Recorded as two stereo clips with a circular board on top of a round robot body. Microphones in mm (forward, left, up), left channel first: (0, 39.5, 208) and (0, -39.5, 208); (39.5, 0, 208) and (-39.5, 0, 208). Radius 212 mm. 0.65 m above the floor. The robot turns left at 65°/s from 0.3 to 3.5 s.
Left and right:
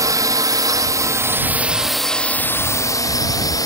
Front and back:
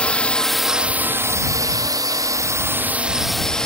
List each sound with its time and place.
0.0 s a drone: 75° right; by 3.7 s 80° left